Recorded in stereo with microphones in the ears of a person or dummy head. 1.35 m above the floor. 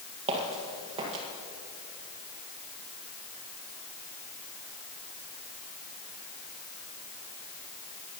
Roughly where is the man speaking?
No man speaking in this recording.